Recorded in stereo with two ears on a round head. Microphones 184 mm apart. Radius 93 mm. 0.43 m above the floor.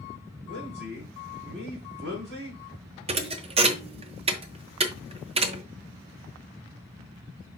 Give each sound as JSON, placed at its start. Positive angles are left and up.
{"t": 0.5, "sound": "a man speaking", "side_deg": -60, "distance_m": 4.5}
{"t": 3.1, "sound": "a thud", "side_deg": -30, "distance_m": 0.8}